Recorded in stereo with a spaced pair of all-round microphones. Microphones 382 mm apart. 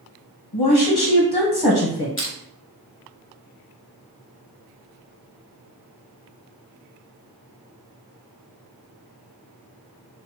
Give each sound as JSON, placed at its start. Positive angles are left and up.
{"t": 0.5, "sound": "a woman speaking", "side_deg": 85, "distance_m": 0.8}
{"t": 2.2, "sound": "crushing", "side_deg": 35, "distance_m": 0.7}